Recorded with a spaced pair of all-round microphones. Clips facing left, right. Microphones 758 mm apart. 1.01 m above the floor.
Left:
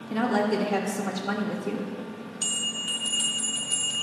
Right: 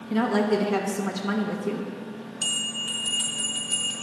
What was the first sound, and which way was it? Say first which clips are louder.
A woman speaking: right 2 dB; 35° right (ahead or behind).